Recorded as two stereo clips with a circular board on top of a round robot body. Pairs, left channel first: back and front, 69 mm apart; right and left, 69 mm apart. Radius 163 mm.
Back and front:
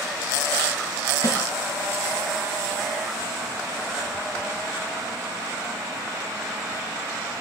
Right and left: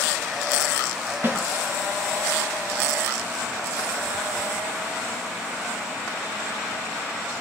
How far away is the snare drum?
About 5.5 m.